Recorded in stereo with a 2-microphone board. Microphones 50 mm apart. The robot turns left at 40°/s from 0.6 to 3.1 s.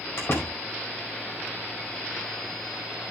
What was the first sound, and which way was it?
A door slam, 50° left (ahead or behind).